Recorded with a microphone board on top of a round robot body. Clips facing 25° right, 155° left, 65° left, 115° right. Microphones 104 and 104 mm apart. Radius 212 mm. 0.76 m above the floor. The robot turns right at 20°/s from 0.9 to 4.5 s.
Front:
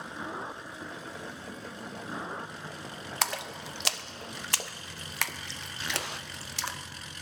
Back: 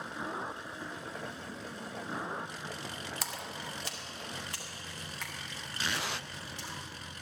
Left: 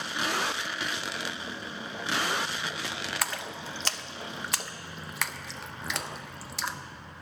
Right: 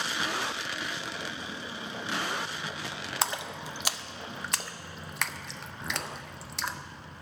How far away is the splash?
About 0.6 m.